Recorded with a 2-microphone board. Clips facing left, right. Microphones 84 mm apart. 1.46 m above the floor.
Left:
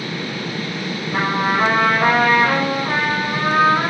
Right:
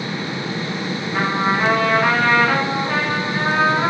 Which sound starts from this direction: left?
A trumpet, at 1.1 s.